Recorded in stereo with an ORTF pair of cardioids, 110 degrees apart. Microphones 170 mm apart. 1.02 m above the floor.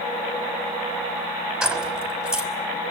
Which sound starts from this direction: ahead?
Keys jangling, at 1.6 s.